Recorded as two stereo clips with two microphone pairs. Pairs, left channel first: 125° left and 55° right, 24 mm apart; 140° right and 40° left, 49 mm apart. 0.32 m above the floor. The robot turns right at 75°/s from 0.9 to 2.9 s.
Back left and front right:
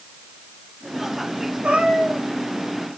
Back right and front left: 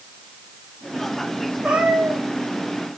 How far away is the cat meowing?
About 8 m.